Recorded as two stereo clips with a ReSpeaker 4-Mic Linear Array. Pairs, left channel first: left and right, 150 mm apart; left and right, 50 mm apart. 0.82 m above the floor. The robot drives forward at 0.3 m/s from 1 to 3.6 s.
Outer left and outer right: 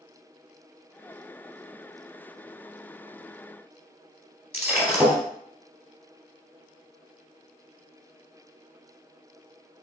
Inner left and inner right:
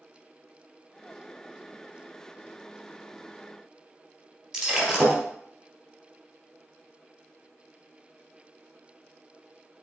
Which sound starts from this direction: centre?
Breaking glass, at 4.5 s.